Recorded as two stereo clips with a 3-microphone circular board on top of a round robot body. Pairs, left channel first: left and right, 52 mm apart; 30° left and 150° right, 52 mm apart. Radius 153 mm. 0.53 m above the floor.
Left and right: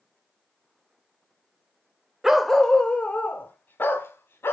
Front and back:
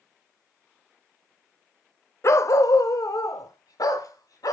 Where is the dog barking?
5° right, 0.7 m; by 4.5 s 40° left, 1.8 m.